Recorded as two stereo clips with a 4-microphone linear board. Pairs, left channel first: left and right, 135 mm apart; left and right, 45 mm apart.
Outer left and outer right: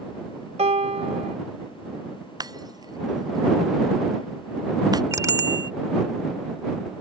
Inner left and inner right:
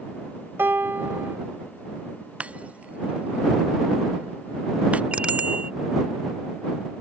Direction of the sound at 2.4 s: 30° right (ahead or behind).